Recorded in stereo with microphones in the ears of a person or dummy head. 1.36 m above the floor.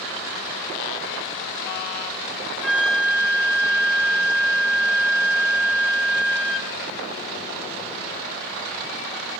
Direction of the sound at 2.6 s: 10° right (ahead or behind).